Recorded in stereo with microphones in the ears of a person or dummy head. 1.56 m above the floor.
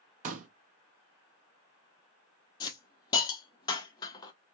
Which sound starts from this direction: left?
A hiss, at 2.6 s.